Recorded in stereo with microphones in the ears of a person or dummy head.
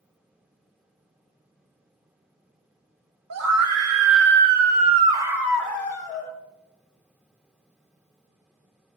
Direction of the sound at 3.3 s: 85° right.